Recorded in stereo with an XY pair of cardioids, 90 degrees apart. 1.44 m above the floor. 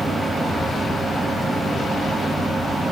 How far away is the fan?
About 3.5 m.